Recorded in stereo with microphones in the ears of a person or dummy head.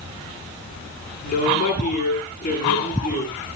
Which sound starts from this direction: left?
A woman speaking, at 1.2 s.